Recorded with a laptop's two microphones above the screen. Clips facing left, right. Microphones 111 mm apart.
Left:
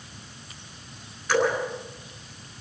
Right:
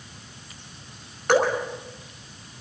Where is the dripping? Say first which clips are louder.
Right 3 dB; 60° right (ahead or behind), 5.5 m.